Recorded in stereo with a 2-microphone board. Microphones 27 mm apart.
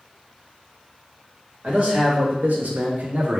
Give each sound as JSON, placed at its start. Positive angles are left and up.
{"t": 1.6, "sound": "a man speaking", "side_deg": -55, "distance_m": 1.0}